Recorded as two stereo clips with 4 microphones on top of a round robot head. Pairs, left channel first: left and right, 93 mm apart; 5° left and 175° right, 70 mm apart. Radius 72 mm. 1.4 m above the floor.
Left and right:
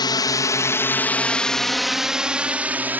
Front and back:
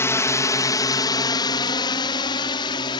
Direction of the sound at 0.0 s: 50° left.